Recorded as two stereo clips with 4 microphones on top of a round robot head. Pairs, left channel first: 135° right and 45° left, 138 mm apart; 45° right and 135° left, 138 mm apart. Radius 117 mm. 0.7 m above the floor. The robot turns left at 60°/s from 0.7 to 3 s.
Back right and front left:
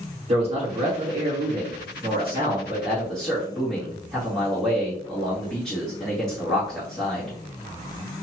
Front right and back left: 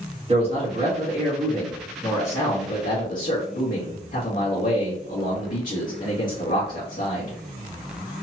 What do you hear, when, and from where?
0.3 s a man speaking: 90° left, 2 m; by 7.4 s 50° right, 2 m